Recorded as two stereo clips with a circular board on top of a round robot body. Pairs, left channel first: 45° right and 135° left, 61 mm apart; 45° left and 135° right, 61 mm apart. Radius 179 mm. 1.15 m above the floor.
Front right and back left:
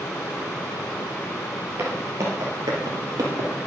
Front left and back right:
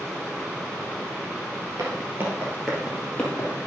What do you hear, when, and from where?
1.8 s footsteps: 170° right, 2.0 m; by 3.5 s 110° left, 2.5 m